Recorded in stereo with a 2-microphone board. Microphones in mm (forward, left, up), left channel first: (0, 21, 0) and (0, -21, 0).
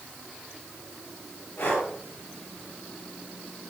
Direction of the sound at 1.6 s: 60° left (ahead or behind).